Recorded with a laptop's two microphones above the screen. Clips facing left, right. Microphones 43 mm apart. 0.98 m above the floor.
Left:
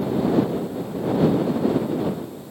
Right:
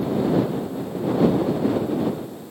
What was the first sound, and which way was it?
Only background noise.